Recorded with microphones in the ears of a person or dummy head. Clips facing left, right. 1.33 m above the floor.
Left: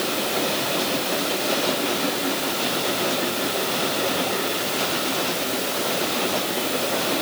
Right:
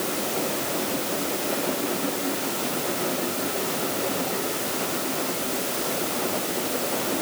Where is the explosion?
I don't hear an explosion.